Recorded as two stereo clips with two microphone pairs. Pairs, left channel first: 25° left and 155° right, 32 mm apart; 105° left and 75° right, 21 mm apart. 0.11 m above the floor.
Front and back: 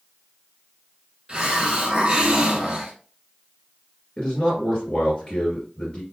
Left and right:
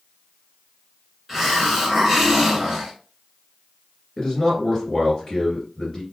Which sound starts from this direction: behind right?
A hiss, at 1.3 s.